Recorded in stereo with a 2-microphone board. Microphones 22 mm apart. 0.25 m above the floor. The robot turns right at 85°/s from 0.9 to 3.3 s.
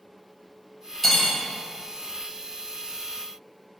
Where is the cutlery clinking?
10° left (ahead or behind), 0.5 m; by 1.4 s 20° left (ahead or behind), 0.5 m.